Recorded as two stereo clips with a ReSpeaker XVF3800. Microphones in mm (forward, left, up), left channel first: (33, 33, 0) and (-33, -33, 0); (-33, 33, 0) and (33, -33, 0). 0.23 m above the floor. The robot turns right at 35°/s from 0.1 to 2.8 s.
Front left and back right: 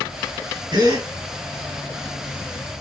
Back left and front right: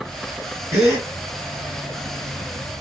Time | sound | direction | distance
0.7 | a gasp | 105° right | 2.5 m